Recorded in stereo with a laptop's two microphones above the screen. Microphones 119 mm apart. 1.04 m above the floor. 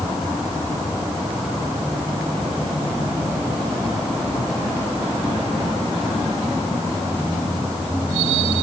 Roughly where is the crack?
I don't hear a crack.